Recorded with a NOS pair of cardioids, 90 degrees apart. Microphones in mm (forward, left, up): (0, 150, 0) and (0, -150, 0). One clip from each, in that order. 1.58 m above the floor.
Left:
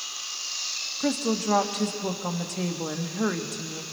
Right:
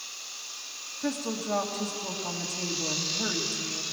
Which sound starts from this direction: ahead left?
A woman speaking, at 1.0 s.